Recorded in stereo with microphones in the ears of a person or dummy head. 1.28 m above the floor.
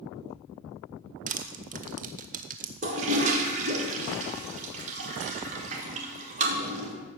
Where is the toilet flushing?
35° right (ahead or behind), 2 m.